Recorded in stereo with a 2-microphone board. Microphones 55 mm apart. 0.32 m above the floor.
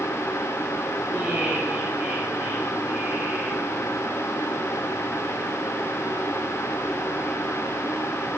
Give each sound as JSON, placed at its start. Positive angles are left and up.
{"t": 1.1, "sound": "laughter", "side_deg": -25, "distance_m": 8.0}